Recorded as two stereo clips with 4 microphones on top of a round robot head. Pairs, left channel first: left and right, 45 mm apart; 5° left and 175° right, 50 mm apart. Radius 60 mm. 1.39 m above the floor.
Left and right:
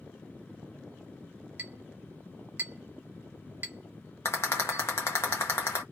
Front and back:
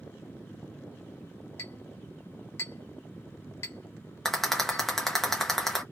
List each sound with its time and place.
1.6 s a clink: 45° right, 1.0 m
4.2 s a rattle: 90° left, 0.5 m